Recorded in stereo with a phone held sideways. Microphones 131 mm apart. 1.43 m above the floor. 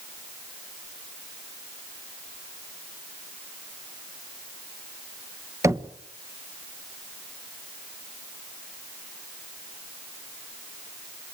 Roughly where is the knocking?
Right.